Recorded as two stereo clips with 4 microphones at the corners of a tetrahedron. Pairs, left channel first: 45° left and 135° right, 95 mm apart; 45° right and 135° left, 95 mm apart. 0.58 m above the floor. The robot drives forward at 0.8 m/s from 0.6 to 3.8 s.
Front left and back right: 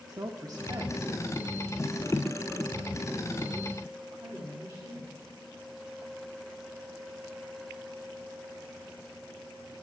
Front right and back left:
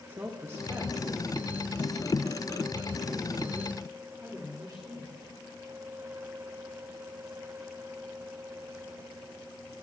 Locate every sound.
0.1 s a woman speaking: 170° right, 1.0 m; by 5.3 s 175° right, 3.5 m